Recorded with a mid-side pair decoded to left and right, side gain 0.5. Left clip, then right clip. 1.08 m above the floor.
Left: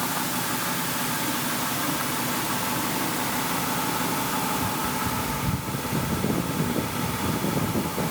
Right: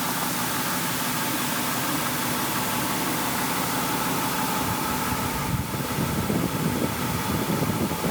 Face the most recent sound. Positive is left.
No sound to turn to.